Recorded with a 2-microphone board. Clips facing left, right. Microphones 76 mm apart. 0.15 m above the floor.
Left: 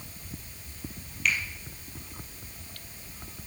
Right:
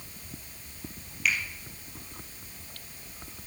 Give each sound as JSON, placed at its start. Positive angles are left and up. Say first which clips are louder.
{"t": 1.2, "sound": "a finger snap", "louder": "even", "side_deg": 0, "distance_m": 4.5}